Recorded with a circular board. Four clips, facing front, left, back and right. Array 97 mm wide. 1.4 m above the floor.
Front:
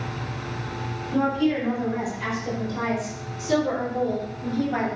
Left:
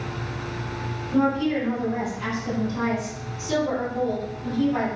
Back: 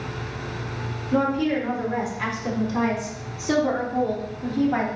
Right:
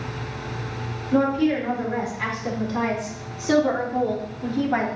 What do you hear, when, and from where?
1.1 s a woman speaking: 145° right, 4.5 m; by 4.9 s 110° right, 3 m